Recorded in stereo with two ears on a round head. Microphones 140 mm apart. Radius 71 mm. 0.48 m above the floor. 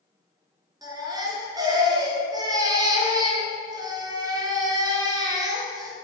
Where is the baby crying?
25° right (ahead or behind), 2.5 m.